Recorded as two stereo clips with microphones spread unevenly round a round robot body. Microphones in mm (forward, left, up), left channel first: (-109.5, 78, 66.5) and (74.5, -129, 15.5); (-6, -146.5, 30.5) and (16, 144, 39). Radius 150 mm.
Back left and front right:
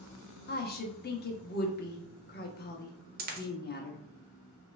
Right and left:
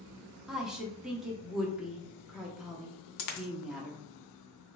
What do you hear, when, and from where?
0.5 s a woman speaking: 175° left, 0.7 m
3.2 s a dropped coin: 105° right, 0.7 m